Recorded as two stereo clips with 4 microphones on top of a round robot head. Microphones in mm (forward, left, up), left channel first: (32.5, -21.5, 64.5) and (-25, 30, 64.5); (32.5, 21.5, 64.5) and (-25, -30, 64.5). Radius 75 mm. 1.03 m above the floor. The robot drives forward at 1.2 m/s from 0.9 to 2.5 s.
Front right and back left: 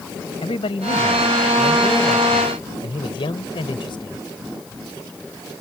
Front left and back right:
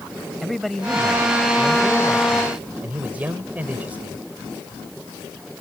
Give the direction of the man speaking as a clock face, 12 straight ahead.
2 o'clock.